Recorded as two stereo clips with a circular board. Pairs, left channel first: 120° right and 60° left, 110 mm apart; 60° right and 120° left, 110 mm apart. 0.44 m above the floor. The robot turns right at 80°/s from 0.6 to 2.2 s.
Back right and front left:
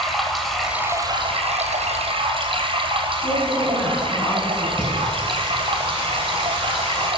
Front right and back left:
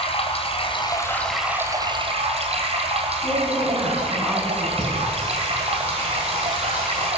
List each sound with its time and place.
0.0 s running water: 30° right, 2 m; by 7.2 s 95° left, 2 m
3.2 s a woman speaking: 165° right, 4.5 m
4.8 s singing: 160° right, 5.5 m